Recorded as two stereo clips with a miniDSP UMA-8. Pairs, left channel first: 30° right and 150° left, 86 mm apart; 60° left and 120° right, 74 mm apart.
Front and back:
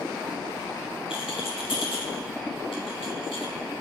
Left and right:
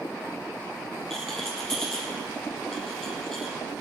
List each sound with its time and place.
1.1 s a rattle: 20° right, 3.5 m